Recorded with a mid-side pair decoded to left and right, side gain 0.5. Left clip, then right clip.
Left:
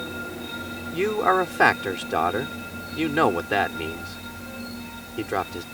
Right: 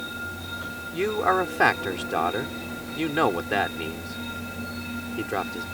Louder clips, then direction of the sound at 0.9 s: Left 2 dB; 15° left.